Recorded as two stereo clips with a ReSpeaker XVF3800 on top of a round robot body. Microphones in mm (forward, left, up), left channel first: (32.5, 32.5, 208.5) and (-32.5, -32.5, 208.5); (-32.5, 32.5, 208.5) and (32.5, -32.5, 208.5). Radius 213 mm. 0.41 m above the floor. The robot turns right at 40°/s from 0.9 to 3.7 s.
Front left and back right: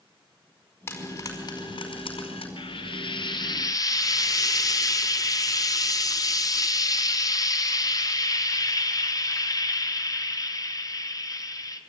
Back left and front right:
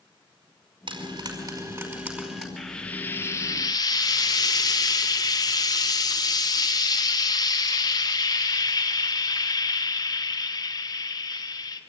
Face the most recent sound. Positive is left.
turn(degrees=90)